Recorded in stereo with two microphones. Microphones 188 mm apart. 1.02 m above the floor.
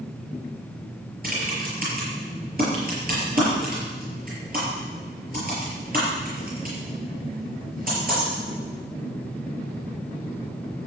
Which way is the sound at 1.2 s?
50° right (ahead or behind).